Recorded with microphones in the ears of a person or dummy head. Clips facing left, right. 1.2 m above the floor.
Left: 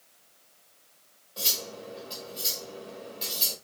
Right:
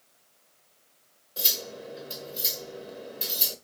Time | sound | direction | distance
1.4 | cutlery clinking | 30° right (ahead or behind) | 1.0 m